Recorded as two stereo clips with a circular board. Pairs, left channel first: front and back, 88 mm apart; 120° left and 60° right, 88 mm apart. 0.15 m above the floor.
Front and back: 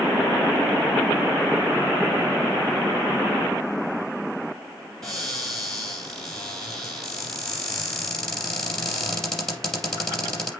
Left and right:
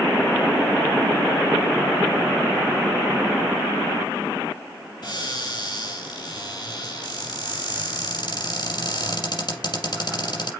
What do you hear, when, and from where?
5.0 s a cupboard door: 85° left, 5.5 m